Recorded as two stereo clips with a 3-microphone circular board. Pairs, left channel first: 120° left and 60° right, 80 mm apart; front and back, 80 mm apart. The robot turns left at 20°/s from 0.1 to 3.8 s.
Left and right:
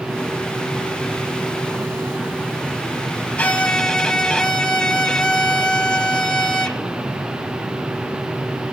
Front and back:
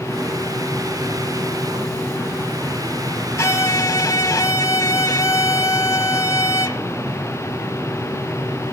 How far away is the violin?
About 0.6 m.